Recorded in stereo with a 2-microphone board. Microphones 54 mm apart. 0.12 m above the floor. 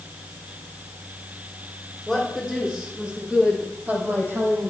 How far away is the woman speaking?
About 5 m.